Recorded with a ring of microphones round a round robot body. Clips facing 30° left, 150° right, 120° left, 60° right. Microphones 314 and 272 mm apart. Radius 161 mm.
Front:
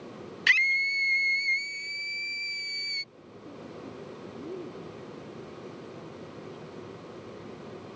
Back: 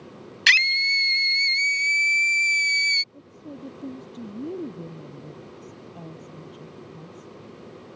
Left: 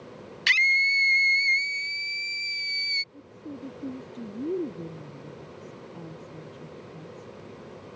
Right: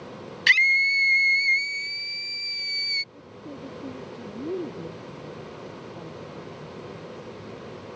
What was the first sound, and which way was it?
A scream, 160° right.